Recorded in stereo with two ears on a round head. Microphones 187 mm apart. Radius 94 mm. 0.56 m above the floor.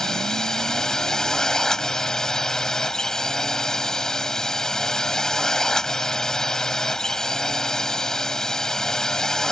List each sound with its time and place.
0.0 s a drone: centre (ahead or behind)